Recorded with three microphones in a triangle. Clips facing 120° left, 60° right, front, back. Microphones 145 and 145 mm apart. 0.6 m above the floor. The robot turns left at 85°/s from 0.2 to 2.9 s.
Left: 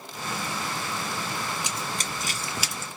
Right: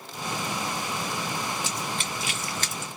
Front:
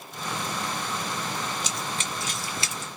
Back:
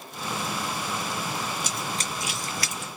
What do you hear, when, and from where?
1.6 s running footsteps: 170° right, 0.9 m; by 2.9 s straight ahead, 0.7 m